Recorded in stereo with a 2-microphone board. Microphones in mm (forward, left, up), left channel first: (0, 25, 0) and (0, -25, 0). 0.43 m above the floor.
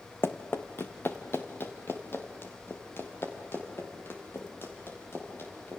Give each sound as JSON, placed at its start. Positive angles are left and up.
{"t": 0.2, "sound": "running footsteps", "side_deg": 50, "distance_m": 1.5}